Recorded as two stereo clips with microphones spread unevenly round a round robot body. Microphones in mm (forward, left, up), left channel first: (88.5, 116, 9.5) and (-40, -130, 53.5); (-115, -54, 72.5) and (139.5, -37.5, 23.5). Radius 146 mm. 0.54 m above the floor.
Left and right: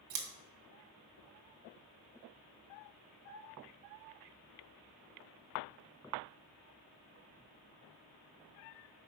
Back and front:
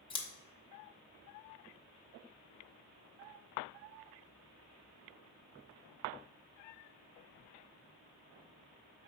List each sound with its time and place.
0.1 s scissors: 105° right, 0.8 m